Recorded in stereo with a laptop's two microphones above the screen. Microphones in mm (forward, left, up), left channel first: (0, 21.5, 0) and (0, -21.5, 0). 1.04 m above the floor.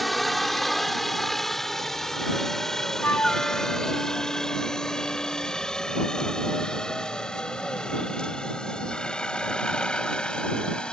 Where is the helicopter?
Centre (ahead or behind); by 10.9 s 20° left (ahead or behind).